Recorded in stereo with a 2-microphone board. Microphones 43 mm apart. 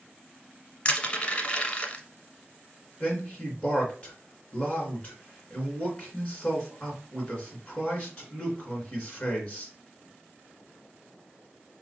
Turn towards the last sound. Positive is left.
turn(degrees=20)  # may be behind; listen again after turning